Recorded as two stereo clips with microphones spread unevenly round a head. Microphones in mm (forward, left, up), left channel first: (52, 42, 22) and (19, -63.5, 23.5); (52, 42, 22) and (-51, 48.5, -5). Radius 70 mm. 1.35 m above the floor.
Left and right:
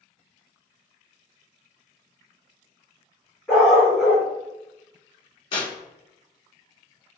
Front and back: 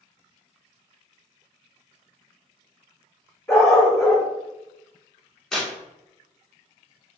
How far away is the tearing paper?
About 1.0 m.